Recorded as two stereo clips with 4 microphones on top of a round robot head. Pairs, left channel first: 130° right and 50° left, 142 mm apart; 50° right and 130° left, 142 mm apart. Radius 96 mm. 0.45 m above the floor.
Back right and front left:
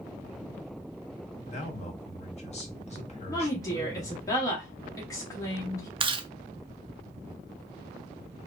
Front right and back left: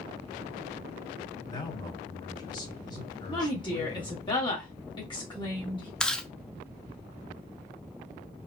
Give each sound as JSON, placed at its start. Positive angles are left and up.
{"t": 1.4, "sound": "a man speaking", "azimuth_deg": -105, "distance_m": 1.3}
{"t": 3.3, "sound": "a woman speaking", "azimuth_deg": -80, "distance_m": 1.2}
{"t": 6.0, "sound": "chewing", "azimuth_deg": 35, "distance_m": 0.5}